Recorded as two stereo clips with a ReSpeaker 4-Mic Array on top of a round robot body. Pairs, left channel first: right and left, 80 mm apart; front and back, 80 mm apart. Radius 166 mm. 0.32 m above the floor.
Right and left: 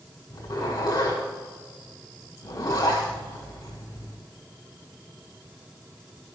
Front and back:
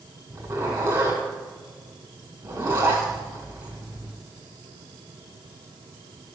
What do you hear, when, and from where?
0.3 s a zipper: 140° right, 6 m